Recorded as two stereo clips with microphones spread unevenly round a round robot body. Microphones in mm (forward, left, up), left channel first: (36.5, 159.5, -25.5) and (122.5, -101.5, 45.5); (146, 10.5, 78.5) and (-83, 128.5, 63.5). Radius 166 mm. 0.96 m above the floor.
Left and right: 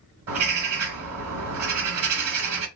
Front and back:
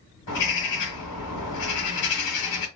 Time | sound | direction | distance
0.3 | a bird | 60° right | 1.5 m